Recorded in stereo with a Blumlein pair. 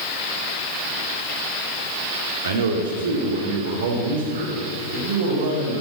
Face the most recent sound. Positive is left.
turn(degrees=-60)